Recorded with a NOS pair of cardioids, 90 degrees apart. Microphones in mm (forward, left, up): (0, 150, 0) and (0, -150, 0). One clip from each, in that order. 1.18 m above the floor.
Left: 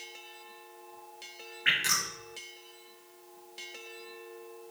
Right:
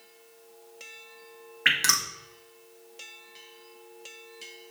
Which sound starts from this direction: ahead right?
Dripping, at 1.6 s.